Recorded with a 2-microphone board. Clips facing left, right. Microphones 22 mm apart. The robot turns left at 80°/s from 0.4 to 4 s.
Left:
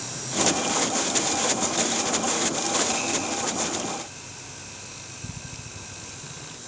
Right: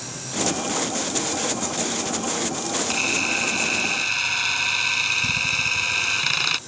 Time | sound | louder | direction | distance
2.9 | a camera shutter | right 5 dB | 20° right | ?